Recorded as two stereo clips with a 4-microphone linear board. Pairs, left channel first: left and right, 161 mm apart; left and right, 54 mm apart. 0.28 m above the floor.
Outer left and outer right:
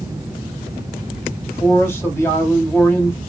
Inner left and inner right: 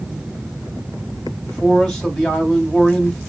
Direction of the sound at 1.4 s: 15° left (ahead or behind).